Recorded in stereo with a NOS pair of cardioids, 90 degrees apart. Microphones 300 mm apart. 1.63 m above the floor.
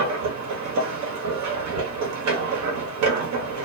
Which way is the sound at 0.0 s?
65° right.